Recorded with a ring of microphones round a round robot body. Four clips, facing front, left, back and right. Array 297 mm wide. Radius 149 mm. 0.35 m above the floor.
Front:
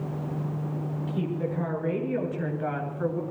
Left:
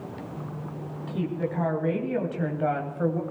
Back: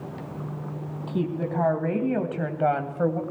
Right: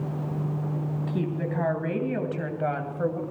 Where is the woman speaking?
155° right, 3.5 m; by 3.2 s 175° left, 2.5 m.